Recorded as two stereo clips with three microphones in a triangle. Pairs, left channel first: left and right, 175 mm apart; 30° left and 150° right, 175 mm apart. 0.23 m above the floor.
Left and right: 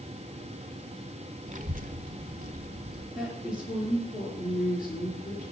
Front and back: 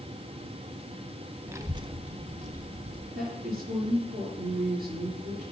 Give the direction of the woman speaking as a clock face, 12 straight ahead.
6 o'clock.